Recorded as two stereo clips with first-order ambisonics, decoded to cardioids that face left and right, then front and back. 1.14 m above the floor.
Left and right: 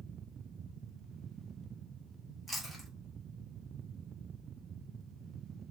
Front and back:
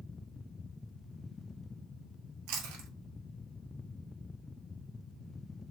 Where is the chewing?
Straight behind, 1.2 m.